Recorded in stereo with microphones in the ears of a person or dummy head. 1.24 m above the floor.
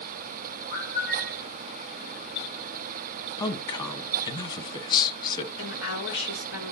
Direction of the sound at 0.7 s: 45° left (ahead or behind).